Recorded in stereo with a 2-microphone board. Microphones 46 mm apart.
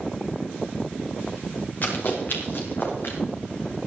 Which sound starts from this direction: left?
Running footsteps, at 1.8 s.